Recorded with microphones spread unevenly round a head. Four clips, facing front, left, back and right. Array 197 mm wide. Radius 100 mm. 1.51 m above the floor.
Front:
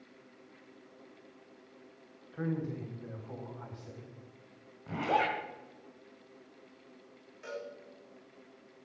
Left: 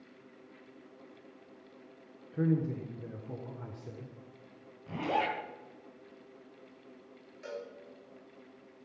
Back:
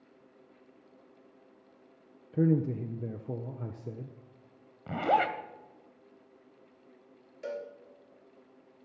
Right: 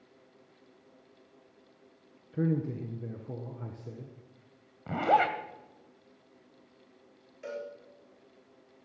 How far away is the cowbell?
About 3 m.